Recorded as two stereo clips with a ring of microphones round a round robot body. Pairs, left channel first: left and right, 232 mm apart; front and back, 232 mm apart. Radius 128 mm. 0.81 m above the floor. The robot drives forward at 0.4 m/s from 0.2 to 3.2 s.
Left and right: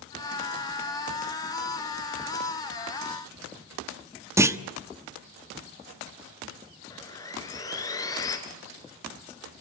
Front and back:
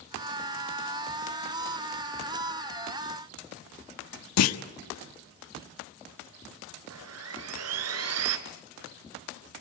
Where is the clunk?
10° right, 1.2 m.